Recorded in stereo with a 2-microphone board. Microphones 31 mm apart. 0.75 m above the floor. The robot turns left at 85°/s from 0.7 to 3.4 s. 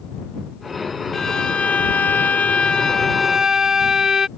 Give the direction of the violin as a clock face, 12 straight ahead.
6 o'clock.